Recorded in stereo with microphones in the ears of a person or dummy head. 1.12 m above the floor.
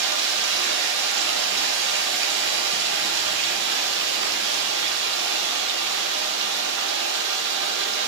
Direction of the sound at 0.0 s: 65° right (ahead or behind).